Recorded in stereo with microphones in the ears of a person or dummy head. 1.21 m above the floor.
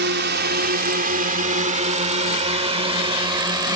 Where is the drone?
50° right (ahead or behind); by 3.8 s 15° right (ahead or behind).